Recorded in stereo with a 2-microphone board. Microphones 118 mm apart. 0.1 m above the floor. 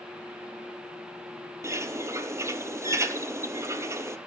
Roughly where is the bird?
Right.